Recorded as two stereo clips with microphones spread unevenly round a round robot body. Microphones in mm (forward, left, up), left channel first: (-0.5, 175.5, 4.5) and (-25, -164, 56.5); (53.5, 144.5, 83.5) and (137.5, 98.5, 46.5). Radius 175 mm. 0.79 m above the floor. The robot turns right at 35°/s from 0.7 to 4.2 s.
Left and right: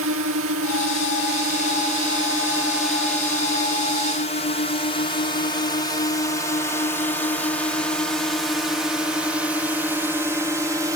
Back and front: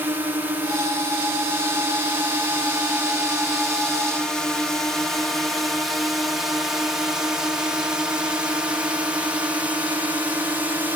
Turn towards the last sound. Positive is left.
turn(degrees=-10)